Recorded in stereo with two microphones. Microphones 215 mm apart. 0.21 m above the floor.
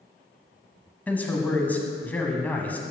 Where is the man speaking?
10° left (ahead or behind), 1.1 m.